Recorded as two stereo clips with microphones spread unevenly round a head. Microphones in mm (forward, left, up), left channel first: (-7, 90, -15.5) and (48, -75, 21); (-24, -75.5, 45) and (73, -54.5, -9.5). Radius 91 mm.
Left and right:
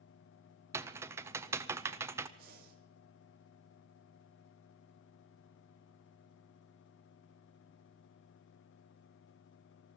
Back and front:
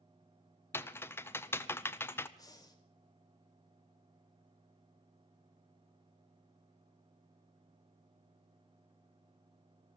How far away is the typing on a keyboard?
About 0.6 m.